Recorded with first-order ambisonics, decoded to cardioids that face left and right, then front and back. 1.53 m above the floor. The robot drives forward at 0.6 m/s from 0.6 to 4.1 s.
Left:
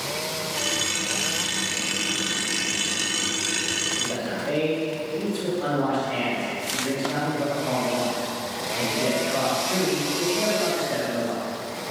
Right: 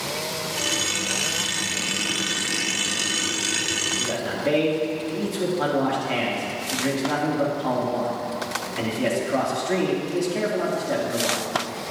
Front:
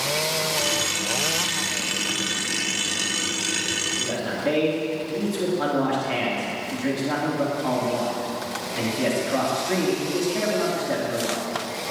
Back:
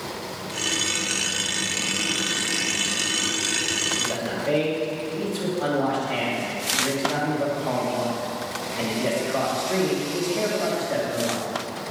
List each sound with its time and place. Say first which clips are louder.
4.0 s a man speaking: right 2 dB, even; 40° right, 3.5 m